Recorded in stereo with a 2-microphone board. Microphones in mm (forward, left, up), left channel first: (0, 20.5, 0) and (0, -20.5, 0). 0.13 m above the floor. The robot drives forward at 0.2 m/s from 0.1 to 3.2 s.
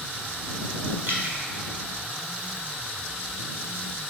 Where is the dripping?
60° right (ahead or behind), 1.2 m.